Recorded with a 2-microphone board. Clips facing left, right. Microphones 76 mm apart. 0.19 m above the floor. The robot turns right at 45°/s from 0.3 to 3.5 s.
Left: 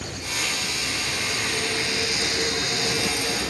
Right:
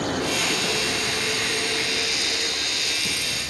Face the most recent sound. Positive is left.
turn(degrees=70)  # may be behind; listen again after turning